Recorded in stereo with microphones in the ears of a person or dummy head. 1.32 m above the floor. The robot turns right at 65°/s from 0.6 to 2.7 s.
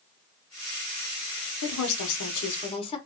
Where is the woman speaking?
80° left, 0.9 m; by 3.0 s 150° left, 0.9 m.